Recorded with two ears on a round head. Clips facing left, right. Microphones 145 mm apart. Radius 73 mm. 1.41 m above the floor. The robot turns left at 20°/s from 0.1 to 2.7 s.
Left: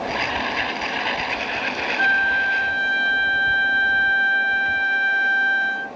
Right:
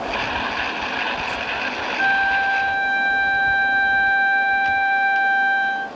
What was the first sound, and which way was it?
A flute, 40° left (ahead or behind).